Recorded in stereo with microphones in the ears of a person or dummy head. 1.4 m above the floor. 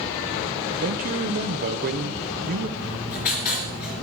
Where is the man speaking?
50° right (ahead or behind), 0.9 m.